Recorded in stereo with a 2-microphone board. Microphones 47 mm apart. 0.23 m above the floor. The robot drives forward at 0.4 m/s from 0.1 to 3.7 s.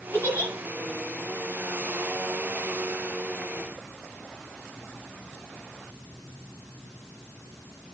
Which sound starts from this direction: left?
A giggle, at 0.1 s.